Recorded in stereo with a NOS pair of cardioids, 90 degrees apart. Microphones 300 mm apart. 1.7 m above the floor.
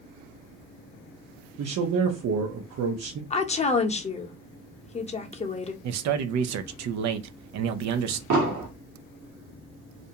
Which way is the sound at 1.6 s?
55° right.